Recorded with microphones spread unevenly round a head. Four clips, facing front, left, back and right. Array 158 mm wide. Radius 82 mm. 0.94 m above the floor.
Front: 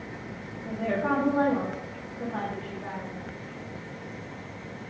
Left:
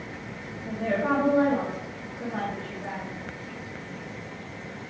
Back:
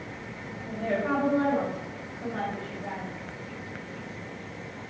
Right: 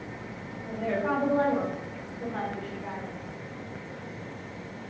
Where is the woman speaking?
25° left, 1.8 m.